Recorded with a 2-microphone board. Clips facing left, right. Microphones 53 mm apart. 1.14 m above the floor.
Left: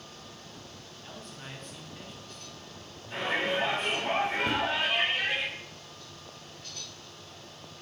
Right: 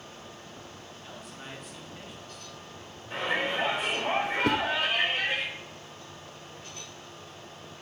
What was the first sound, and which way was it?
A man speaking, 5° right (ahead or behind).